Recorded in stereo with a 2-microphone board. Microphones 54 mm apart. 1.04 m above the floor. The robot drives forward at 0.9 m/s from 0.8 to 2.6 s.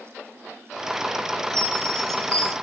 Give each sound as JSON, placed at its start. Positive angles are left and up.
{"t": 1.5, "sound": "a chime", "side_deg": -65, "distance_m": 1.3}